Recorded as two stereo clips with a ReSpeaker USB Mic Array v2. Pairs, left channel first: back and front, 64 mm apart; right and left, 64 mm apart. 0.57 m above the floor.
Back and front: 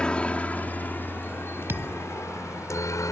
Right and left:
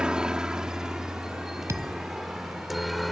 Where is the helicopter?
140° left; by 3.1 s straight behind.